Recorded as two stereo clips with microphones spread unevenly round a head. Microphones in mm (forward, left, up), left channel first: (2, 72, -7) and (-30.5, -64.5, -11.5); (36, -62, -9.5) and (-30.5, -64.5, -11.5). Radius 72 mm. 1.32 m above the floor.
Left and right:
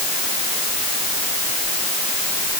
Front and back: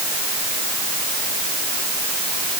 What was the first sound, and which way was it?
Only background noise.